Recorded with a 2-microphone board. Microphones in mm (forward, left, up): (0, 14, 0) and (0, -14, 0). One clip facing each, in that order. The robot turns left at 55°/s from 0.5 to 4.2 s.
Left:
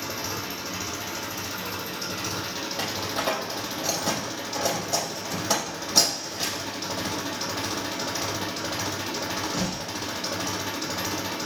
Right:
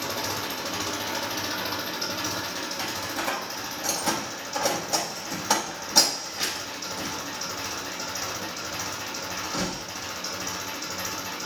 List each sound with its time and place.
0.0 s an engine running: 70° right, 3.5 m; by 11.5 s 85° left, 3.5 m
2.8 s a door slam: 75° left (ahead or behind), 4 m; by 9.9 s centre (ahead or behind), 4 m